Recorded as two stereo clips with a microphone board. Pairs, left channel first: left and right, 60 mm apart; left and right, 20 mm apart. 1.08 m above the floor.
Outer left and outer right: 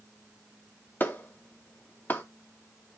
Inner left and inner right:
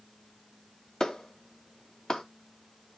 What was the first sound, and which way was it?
A clap, 35° left (ahead or behind).